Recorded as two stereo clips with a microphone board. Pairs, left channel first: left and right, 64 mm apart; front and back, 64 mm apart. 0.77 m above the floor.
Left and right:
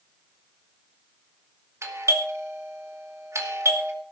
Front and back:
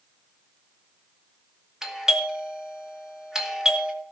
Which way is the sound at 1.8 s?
100° right.